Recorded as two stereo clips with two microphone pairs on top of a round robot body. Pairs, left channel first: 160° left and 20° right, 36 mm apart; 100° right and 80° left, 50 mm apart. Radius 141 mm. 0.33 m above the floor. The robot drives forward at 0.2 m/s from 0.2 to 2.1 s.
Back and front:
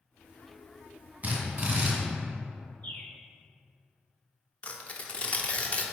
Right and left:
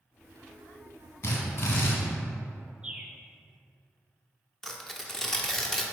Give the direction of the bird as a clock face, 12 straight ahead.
7 o'clock.